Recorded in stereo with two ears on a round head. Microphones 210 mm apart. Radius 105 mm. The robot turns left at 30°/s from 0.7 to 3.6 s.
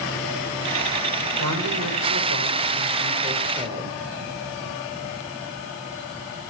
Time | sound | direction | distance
1.4 | a woman speaking | 95° right | 4 m